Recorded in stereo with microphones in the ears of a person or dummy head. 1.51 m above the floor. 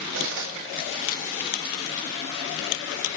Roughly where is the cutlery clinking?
Right.